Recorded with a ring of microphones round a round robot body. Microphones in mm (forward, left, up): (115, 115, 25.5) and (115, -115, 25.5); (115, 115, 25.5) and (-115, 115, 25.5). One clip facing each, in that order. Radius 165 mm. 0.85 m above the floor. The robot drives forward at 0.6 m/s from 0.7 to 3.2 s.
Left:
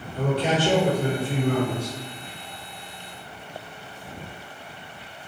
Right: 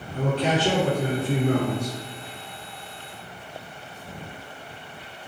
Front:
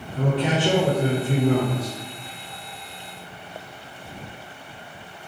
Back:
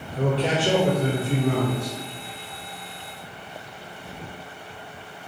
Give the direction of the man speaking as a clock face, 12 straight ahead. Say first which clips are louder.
Even, even; 2 o'clock.